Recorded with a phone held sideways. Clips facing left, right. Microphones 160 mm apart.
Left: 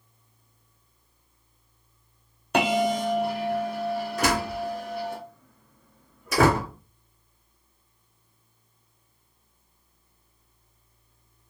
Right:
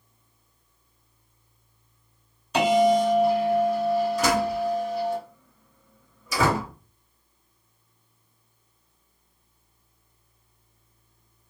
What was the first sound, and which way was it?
A bell, 60° left (ahead or behind).